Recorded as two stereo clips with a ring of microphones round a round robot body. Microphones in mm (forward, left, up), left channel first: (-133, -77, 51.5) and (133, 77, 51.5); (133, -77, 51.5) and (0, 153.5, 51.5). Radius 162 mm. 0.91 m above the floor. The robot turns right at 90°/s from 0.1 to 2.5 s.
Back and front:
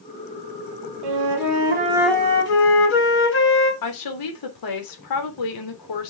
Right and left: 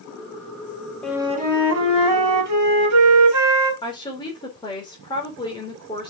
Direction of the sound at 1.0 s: 25° left.